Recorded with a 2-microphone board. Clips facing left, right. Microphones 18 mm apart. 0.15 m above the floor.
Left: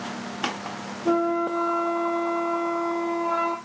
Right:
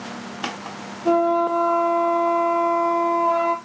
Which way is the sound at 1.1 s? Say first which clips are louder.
Right 5 dB; 55° right (ahead or behind).